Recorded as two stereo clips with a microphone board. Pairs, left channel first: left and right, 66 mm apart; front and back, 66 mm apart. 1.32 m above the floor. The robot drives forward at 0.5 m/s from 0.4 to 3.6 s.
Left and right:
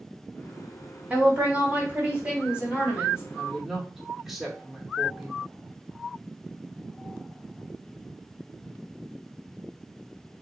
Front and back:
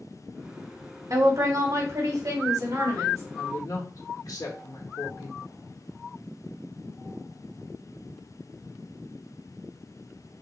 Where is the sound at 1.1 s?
150° right, 1.6 m; by 3.2 s 165° right, 2.5 m.